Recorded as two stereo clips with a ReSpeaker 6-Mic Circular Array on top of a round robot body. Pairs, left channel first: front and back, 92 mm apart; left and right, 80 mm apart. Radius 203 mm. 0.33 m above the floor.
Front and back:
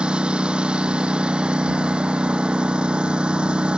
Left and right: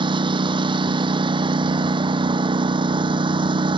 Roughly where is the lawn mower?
Right.